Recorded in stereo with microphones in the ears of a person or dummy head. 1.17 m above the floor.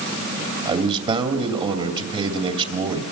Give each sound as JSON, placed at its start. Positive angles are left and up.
{"t": 0.7, "sound": "a man speaking", "side_deg": -35, "distance_m": 2.5}